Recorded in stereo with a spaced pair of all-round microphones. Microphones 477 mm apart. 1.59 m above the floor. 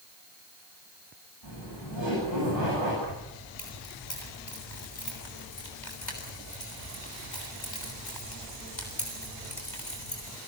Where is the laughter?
75° left (ahead or behind), 8.5 m.